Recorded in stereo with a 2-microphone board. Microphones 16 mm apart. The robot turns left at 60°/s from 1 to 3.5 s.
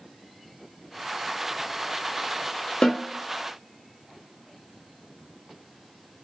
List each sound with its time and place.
2.8 s a snare drum: 85° left, 1.1 m; by 3.1 s 70° left (ahead or behind), 1.1 m